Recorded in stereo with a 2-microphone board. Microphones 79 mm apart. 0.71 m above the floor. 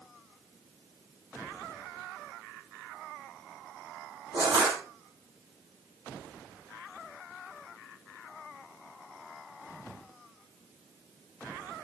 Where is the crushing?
80° right, 6.5 m.